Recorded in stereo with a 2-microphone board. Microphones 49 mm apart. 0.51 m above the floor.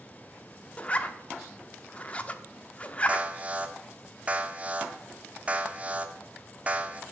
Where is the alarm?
30° right (ahead or behind), 0.8 m.